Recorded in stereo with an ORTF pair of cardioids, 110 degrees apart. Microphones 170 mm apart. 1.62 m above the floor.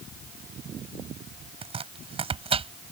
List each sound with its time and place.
1.6 s chopping: 35° right